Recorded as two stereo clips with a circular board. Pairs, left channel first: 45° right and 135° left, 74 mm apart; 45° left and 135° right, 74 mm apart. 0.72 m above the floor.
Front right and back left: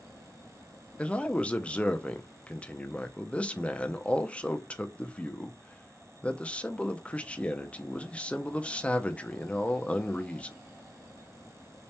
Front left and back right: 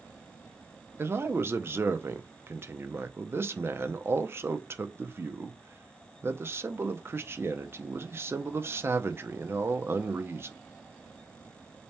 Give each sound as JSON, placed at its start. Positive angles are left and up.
{"t": 1.0, "sound": "a man speaking", "azimuth_deg": -110, "distance_m": 0.5}